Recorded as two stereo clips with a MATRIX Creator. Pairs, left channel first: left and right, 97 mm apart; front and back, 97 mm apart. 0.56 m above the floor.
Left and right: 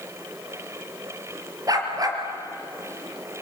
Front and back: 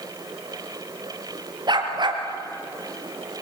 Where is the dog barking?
140° right, 3 m.